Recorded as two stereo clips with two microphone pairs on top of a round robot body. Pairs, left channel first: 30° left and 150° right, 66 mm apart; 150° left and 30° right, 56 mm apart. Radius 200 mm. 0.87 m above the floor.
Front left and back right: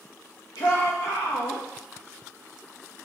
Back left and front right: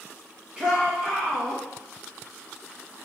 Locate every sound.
0.6 s a shout: 40° left, 1.2 m